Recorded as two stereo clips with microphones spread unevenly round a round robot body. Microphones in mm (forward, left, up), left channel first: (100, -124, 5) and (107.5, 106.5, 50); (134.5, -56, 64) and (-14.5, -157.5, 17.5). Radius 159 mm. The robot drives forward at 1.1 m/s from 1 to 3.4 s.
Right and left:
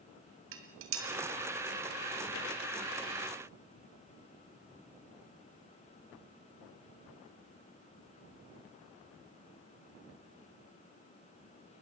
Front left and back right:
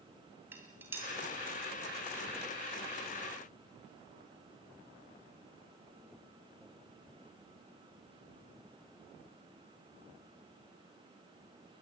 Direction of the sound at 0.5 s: 135° left.